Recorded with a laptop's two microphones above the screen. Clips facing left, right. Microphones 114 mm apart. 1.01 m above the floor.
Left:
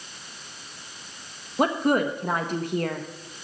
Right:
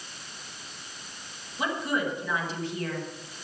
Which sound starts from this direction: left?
A woman speaking, at 1.6 s.